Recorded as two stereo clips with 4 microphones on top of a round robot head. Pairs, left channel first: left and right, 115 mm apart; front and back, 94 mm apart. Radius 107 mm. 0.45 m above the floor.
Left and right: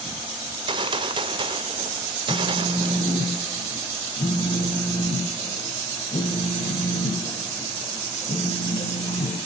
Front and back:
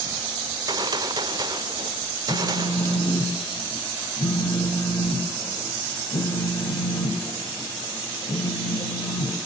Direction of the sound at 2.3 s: 40° left.